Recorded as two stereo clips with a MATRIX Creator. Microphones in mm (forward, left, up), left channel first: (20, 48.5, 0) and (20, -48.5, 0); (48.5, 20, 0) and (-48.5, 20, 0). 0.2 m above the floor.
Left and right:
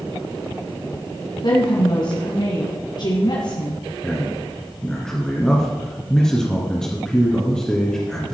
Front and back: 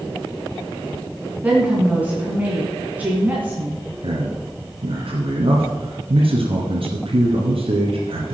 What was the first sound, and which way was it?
A woman speaking, 110° left.